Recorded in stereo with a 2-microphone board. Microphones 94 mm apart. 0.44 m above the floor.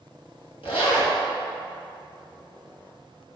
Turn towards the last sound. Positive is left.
turn(degrees=75)  # may be behind; listen again after turning